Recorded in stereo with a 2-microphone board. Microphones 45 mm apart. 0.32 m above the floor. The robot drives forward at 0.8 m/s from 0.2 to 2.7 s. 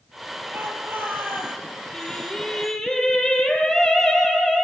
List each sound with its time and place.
0.5 s a shout: 50° right (ahead or behind), 8 m; by 1.6 s 45° right (ahead or behind), 8.5 m
1.9 s singing: 15° left (ahead or behind), 8 m; by 4.7 s 10° left (ahead or behind), 8.5 m